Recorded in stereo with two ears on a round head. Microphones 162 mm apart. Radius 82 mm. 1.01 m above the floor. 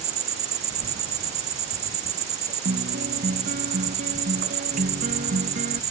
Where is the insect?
40° right (ahead or behind).